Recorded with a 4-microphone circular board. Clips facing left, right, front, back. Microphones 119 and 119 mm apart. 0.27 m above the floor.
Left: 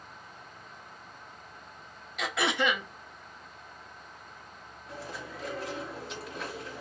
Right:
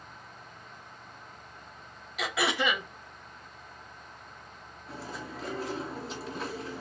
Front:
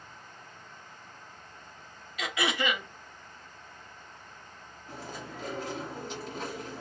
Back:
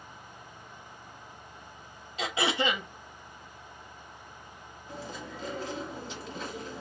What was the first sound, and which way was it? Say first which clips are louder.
Throat clearing: even, back 2 dB; 175° right.